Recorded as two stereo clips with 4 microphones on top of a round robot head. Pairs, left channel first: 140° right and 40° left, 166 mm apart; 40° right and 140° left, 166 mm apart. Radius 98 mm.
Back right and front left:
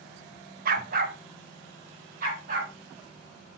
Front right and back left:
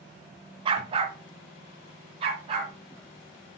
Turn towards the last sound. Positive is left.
turn(degrees=80)